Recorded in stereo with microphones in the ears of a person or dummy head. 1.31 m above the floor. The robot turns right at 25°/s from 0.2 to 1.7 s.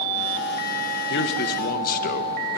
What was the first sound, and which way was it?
A man speaking, 70° left (ahead or behind).